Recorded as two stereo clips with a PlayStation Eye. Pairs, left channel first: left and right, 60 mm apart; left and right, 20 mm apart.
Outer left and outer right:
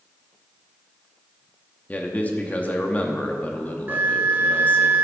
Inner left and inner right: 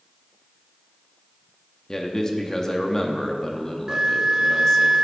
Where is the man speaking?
25° left (ahead or behind), 0.8 m.